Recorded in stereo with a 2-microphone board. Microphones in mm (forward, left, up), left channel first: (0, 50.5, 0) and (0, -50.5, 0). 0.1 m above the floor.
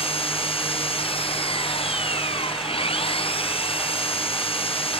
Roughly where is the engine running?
Left.